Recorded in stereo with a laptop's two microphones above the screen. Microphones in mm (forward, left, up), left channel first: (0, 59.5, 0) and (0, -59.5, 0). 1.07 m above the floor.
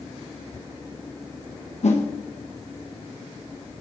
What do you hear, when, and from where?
1.8 s a whoosh: 65° left (ahead or behind), 1.0 m